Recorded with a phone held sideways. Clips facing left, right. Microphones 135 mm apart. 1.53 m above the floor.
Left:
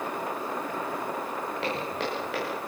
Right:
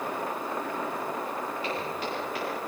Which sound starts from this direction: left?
Footsteps, at 1.6 s.